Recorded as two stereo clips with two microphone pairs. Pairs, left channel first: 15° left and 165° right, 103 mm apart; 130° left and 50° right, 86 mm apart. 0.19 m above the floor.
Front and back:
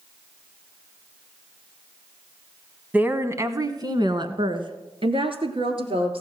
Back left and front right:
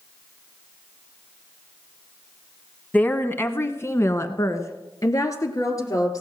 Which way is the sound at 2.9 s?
150° left.